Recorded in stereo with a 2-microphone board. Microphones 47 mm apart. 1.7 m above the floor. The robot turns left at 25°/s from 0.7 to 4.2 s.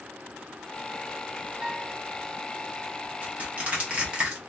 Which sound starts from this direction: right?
Crushing, at 3.2 s.